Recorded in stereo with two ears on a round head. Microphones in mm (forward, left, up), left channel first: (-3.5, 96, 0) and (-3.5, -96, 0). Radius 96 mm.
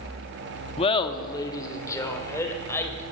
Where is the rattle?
No rattle in this recording.